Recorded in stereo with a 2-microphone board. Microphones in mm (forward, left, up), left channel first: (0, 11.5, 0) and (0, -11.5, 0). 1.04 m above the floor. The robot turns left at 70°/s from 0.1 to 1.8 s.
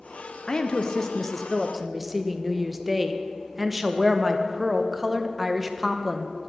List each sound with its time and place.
0.5 s a woman speaking: 80° left, 0.5 m; by 6.3 s 10° right, 0.5 m